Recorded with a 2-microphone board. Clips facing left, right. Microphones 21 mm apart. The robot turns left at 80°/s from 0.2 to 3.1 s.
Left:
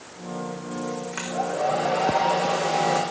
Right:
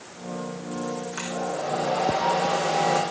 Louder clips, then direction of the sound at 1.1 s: Left 5 dB; 145° left.